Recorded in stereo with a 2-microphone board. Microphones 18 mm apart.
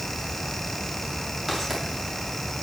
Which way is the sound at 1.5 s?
Centre (ahead or behind).